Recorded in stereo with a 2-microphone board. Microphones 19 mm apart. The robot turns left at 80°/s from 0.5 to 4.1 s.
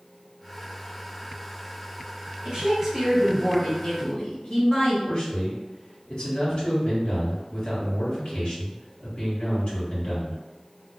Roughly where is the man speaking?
Left.